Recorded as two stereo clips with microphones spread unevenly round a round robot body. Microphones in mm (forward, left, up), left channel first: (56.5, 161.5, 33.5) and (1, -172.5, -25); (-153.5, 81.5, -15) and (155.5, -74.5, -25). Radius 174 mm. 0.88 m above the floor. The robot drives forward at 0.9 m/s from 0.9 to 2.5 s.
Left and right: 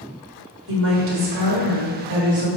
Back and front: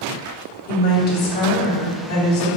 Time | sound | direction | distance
0.7 | a woman speaking | 140° right | 1.9 m